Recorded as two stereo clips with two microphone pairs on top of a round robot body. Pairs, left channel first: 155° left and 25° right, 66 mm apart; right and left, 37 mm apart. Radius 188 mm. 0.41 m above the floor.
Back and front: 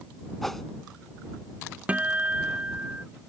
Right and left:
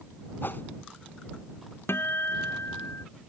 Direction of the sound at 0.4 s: 115° right.